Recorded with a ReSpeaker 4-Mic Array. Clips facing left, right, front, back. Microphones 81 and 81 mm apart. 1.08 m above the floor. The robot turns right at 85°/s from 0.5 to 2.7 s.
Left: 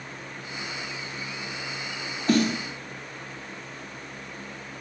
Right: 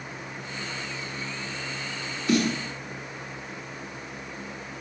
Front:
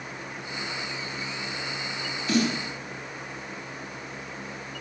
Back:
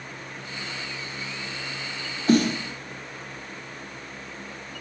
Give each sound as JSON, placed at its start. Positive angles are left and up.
{"t": 2.3, "sound": "a snare drum", "azimuth_deg": 130, "distance_m": 2.0}